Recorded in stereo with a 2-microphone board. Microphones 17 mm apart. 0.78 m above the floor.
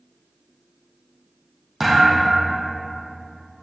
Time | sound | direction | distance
1.8 | a thud | 15° right (ahead or behind) | 3.5 m